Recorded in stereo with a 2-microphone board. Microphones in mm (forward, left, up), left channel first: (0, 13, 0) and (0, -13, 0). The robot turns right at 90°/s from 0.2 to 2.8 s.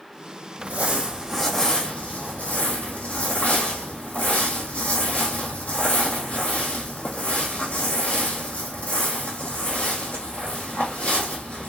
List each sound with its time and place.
0.6 s crumpling: 75° right, 1.5 m; by 11.7 s 125° left, 1.5 m